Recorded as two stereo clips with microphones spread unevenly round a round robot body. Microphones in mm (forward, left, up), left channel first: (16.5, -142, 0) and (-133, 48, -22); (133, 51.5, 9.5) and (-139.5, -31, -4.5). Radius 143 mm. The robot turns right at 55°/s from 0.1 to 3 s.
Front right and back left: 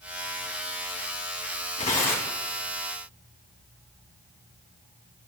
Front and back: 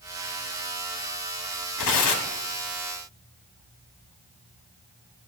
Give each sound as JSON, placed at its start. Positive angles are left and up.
{"t": 1.8, "sound": "tearing paper", "azimuth_deg": 15, "distance_m": 2.5}